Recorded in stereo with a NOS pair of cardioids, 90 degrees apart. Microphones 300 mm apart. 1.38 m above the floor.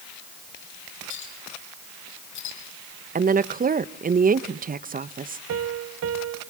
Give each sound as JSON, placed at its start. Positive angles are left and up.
{"t": 1.1, "sound": "a clink", "azimuth_deg": 70, "distance_m": 7.0}
{"t": 3.1, "sound": "a woman speaking", "azimuth_deg": -30, "distance_m": 1.0}
{"t": 5.5, "sound": "a piano", "azimuth_deg": -50, "distance_m": 1.4}